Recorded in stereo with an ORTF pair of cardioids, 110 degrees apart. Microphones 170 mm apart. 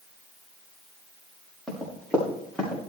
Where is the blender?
I don't hear a blender.